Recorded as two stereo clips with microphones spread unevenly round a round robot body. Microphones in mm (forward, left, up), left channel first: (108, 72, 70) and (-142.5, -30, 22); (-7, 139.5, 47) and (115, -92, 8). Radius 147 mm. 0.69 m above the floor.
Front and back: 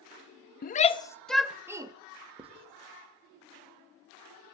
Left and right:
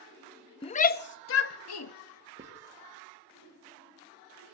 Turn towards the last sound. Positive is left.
turn(degrees=-105)